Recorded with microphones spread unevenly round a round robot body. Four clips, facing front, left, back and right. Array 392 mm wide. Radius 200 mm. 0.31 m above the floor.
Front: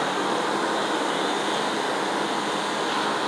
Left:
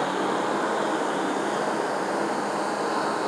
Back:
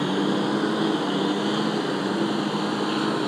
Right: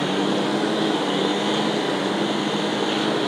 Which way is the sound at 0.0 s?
140° right.